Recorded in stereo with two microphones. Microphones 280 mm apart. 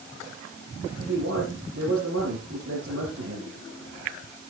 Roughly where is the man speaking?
Right.